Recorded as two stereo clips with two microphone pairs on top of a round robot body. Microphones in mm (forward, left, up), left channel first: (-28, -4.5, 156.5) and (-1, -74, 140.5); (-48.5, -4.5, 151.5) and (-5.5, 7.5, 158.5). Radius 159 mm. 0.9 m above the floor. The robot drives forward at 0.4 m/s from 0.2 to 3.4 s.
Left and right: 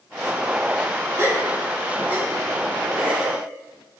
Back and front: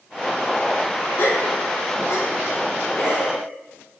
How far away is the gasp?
About 1.3 m.